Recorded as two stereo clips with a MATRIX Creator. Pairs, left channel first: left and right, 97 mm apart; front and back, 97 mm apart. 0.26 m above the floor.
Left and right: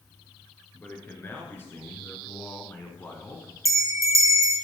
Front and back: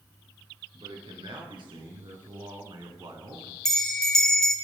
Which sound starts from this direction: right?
A bell, at 3.6 s.